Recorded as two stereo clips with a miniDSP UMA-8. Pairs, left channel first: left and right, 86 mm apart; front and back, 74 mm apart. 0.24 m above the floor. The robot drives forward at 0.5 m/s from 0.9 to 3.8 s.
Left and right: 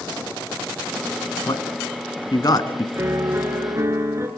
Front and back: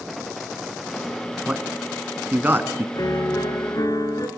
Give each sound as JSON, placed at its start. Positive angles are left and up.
{"t": 1.5, "sound": "a man speaking", "azimuth_deg": 105, "distance_m": 2.0}
{"t": 3.0, "sound": "a piano", "azimuth_deg": -30, "distance_m": 3.5}